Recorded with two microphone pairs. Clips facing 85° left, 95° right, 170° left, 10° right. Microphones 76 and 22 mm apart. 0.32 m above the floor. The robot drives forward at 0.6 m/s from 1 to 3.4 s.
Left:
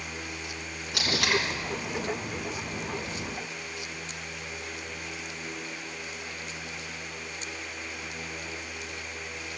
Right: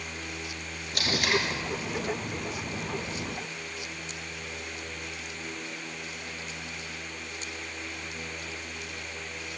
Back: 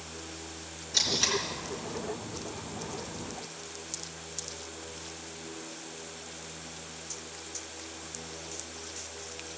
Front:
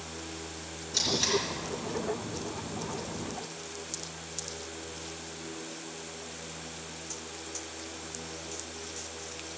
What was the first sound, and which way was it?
Tape being pulled, 85° left.